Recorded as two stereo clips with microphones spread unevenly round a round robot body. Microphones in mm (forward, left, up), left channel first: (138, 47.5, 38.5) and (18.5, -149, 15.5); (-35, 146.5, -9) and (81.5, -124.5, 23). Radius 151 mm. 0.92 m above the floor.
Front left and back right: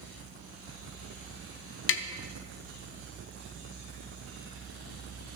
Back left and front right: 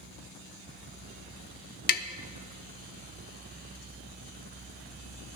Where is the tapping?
55° left, 0.6 m.